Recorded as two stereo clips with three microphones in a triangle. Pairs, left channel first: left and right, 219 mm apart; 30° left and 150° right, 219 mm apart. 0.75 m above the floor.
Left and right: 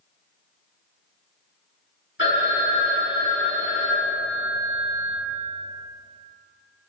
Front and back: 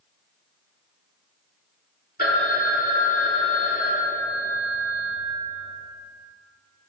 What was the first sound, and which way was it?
A phone ringing, 70° left.